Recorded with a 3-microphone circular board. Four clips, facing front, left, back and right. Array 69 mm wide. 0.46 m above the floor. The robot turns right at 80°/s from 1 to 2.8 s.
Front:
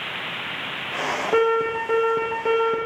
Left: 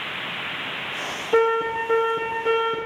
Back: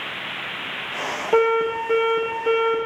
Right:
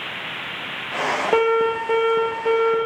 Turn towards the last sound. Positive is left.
turn(degrees=25)